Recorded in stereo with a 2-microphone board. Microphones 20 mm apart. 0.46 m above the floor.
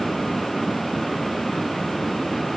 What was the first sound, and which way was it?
Only background noise.